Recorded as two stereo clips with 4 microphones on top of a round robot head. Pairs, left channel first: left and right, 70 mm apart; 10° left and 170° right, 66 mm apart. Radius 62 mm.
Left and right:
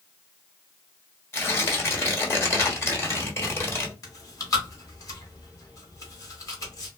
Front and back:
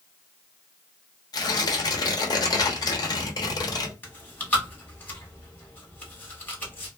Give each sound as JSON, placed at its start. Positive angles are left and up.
{"t": 1.3, "sound": "tearing paper", "azimuth_deg": 30, "distance_m": 1.2}
{"t": 4.0, "sound": "chewing", "azimuth_deg": 70, "distance_m": 1.4}